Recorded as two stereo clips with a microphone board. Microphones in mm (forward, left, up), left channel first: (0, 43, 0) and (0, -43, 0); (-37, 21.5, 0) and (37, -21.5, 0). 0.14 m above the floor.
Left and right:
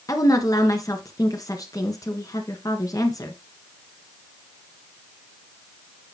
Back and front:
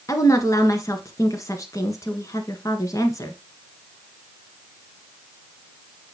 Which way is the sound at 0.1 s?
115° left.